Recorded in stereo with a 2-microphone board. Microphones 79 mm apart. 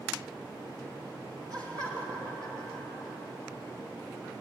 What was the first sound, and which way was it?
Laughter, 50° right (ahead or behind).